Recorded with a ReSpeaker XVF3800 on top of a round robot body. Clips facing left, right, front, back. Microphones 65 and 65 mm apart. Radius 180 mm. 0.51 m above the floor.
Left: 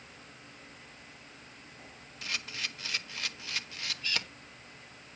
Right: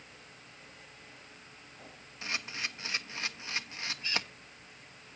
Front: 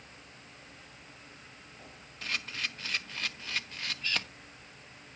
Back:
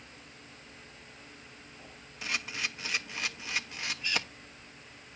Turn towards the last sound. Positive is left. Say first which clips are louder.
# right 1 dB, back 1 dB
turn(degrees=-115)